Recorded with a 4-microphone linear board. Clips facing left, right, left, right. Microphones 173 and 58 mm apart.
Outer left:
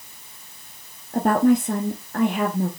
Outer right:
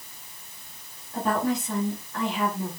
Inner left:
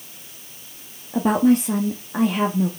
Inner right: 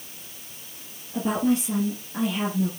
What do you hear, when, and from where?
1.1 s a woman speaking: 50° left (ahead or behind), 1.2 m